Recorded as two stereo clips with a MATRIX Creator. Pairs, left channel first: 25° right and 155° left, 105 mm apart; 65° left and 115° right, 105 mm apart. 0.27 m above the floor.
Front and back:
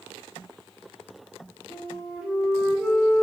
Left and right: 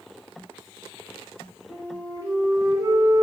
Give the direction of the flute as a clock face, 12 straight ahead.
4 o'clock.